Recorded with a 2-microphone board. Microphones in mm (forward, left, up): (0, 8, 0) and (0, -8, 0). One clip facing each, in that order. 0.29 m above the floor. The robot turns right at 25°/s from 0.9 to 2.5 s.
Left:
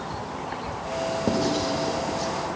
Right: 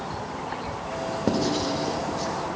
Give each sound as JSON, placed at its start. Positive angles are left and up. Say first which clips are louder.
{"t": 1.3, "sound": "writing", "louder": "right 1 dB", "side_deg": -10, "distance_m": 0.7}